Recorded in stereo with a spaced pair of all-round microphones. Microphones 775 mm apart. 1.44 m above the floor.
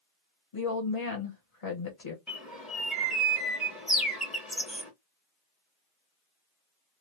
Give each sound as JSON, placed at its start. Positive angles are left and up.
{"t": 0.5, "sound": "a woman speaking", "side_deg": 45, "distance_m": 1.0}
{"t": 2.3, "sound": "a bird", "side_deg": 0, "distance_m": 1.0}